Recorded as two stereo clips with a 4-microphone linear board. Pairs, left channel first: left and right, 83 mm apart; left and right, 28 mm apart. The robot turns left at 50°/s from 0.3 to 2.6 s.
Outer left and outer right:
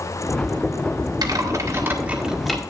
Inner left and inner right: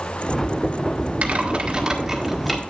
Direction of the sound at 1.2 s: 50° right (ahead or behind).